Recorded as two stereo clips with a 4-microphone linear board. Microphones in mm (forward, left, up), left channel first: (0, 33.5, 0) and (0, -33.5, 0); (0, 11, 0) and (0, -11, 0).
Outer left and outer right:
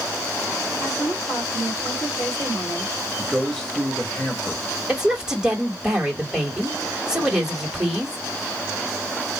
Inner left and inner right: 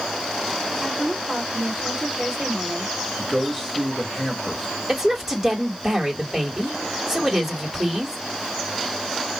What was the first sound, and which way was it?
A woman speaking, 30° left (ahead or behind).